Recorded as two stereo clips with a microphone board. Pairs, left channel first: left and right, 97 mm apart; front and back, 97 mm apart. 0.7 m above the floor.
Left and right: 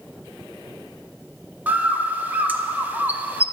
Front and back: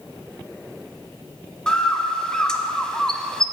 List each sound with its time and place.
1.7 s a bird: 65° right, 0.5 m